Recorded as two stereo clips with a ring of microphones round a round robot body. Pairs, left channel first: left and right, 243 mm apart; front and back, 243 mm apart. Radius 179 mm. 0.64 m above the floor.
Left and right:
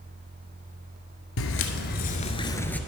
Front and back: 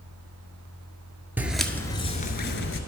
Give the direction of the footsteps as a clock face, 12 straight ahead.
9 o'clock.